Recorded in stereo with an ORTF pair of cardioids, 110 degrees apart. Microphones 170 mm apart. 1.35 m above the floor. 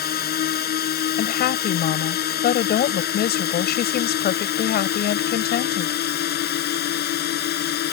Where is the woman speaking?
65° left.